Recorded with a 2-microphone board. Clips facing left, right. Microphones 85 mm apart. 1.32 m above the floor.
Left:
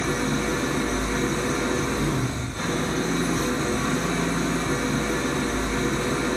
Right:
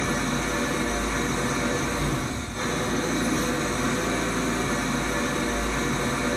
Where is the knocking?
I don't hear knocking.